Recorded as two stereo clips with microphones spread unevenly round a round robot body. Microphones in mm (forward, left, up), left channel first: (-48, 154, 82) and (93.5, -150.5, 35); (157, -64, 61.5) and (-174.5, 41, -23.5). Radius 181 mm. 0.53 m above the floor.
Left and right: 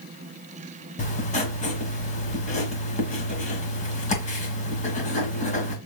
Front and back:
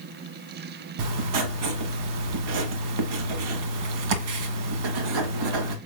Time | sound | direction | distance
1.0 | writing | 175° right | 1.5 m